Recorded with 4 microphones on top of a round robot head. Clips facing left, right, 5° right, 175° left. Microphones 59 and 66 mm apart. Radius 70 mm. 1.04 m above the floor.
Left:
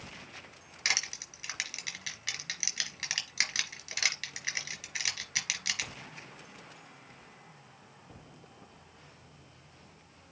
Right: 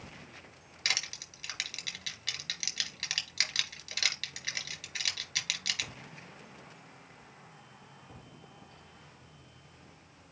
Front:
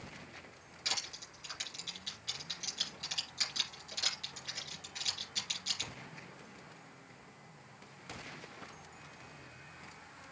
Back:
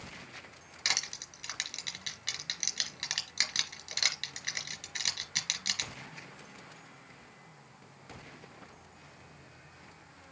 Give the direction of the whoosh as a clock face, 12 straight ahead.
No whoosh in this recording.